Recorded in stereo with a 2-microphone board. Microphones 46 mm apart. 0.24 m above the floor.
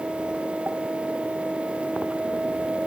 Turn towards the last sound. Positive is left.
No sound to turn to.